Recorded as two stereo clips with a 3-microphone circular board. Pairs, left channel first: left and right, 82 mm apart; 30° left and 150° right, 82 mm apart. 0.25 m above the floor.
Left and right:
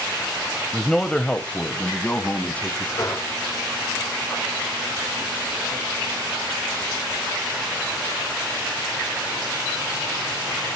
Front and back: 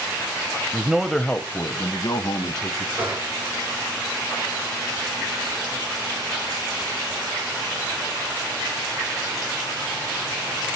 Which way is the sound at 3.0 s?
140° left.